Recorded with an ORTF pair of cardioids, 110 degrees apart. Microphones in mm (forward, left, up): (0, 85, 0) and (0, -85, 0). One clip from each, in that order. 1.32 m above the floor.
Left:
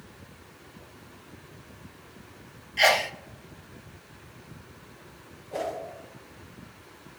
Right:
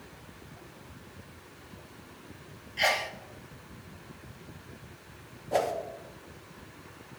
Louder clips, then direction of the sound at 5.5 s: Right 4 dB; 60° right.